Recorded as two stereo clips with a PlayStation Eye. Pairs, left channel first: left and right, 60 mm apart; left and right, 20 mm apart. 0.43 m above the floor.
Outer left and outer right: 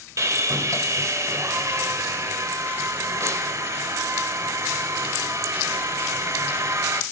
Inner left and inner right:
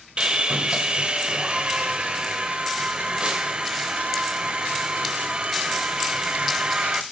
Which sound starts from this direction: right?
Sawing, at 0.2 s.